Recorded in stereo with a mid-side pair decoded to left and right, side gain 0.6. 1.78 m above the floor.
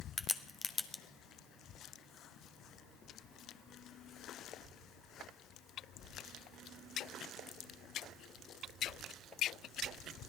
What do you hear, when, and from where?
0.2 s a crack: 25° left, 0.9 m